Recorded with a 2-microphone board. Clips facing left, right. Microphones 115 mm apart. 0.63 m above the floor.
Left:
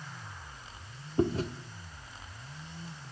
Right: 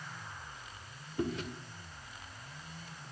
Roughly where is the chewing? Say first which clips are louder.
Left 7 dB; left.